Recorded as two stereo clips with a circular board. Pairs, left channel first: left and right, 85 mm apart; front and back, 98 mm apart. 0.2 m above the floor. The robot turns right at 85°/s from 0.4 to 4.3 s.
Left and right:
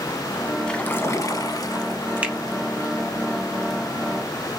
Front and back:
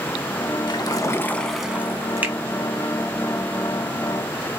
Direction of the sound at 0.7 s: 10° left.